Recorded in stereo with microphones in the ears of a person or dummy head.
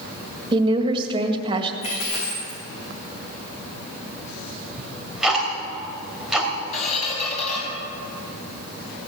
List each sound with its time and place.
0.5 s a woman speaking: 20° right (ahead or behind), 1.8 m
1.8 s a dropped coin: 35° left (ahead or behind), 6 m
4.8 s ticking: 5° right (ahead or behind), 2.5 m
6.7 s a squeak: 40° left (ahead or behind), 5 m